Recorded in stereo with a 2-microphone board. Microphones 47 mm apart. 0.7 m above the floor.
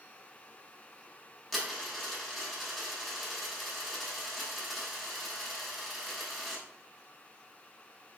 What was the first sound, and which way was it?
A dropped coin, centre (ahead or behind).